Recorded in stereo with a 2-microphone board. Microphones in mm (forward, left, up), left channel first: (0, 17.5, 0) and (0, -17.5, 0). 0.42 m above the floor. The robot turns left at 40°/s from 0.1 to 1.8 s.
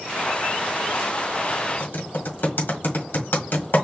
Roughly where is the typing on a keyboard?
Left.